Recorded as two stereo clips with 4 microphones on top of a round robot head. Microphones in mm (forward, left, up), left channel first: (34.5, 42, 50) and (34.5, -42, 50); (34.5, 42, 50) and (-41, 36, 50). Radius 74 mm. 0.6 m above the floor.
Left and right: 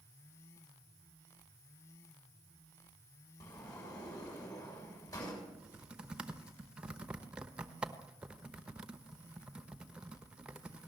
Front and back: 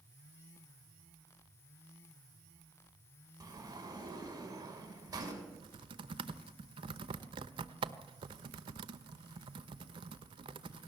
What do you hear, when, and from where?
3.4 s a sliding door: 145° left, 6 m
5.5 s typing on a keyboard: 170° right, 0.9 m